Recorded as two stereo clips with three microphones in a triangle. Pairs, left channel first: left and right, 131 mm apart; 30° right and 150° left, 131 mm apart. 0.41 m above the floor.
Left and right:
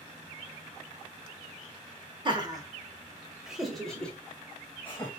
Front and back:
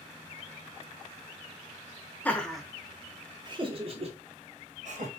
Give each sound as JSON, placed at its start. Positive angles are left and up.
{"t": 2.2, "sound": "laughter", "azimuth_deg": -100, "distance_m": 0.9}